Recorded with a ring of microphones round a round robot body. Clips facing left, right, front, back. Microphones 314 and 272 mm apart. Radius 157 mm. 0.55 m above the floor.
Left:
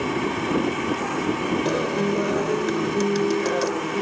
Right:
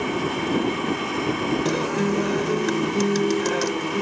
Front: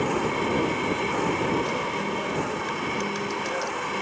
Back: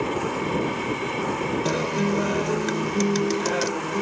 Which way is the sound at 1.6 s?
170° right.